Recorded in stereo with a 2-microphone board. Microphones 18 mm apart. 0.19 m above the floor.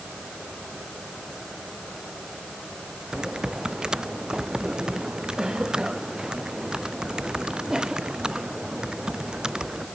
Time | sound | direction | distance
3.1 | typing on a keyboard | 40° right (ahead or behind) | ?